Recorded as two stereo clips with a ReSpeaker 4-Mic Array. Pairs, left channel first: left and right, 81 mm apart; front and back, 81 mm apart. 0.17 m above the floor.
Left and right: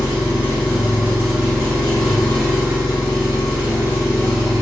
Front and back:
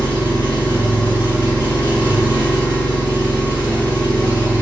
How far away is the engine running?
About 1.2 m.